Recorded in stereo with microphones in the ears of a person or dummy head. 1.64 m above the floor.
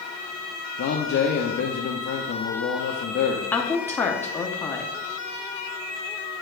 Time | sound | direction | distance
0.8 | a man speaking | 50° left (ahead or behind) | 0.5 m
3.5 | a woman speaking | 10° left (ahead or behind) | 0.5 m